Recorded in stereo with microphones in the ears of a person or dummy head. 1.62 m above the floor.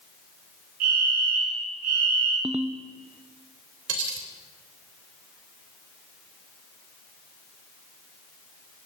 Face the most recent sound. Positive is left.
turn(degrees=-75)  # may be behind; listen again after turning